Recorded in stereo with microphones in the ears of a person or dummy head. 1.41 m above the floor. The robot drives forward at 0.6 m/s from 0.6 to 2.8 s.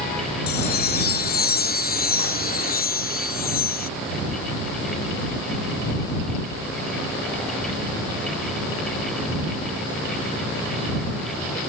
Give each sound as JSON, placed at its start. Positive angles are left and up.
{"t": 0.5, "sound": "a chime", "side_deg": 55}